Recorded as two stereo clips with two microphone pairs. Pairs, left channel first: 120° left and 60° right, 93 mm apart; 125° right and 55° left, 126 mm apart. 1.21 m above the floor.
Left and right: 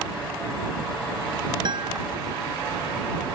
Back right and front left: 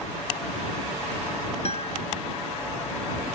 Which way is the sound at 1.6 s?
95° right.